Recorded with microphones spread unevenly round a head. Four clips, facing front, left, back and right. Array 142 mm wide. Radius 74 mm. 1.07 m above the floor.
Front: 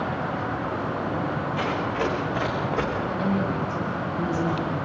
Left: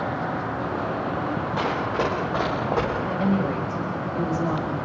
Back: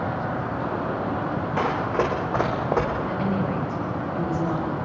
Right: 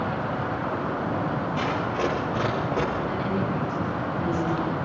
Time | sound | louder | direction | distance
1.6 | running footsteps | left 3 dB, back 4 dB | 165° left | 7 m
3.1 | a woman speaking | left 3 dB, even | 120° left | 7.5 m